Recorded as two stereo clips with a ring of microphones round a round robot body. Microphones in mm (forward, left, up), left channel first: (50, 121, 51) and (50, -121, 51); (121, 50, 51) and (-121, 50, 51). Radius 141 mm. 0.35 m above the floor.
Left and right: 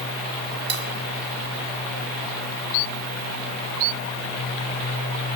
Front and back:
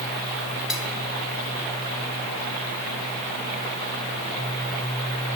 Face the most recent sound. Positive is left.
turn(degrees=-90)